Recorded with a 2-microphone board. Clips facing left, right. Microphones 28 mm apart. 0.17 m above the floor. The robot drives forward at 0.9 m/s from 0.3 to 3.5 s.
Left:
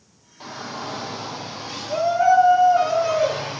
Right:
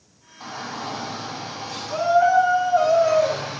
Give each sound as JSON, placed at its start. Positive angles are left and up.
{"t": 0.4, "sound": "a shout", "side_deg": 50, "distance_m": 4.5}